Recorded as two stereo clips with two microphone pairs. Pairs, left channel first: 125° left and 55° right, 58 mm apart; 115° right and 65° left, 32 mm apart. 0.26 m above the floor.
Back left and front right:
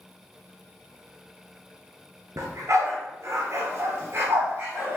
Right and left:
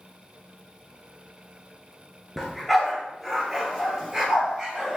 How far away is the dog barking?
About 1.9 m.